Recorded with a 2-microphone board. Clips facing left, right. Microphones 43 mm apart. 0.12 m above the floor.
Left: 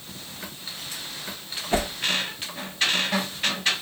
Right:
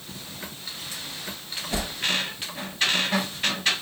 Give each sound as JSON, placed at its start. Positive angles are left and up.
{"t": 1.7, "sound": "a whoosh", "side_deg": 35, "distance_m": 0.5}